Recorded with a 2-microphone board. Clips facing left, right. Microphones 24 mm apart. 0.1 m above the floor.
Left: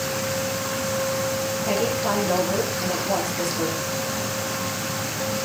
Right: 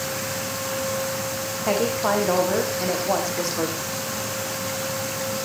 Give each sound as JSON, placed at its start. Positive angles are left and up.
{"t": 1.6, "sound": "a woman speaking", "side_deg": -50, "distance_m": 6.5}